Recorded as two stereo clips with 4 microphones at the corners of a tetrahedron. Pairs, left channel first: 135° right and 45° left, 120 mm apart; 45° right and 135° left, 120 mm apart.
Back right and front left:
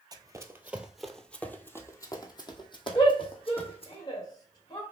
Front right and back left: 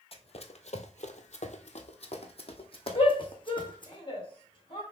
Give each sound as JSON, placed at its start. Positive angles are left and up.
{"t": 0.1, "sound": "running footsteps", "azimuth_deg": -10, "distance_m": 1.0}
{"t": 3.0, "sound": "a shout", "azimuth_deg": -85, "distance_m": 1.9}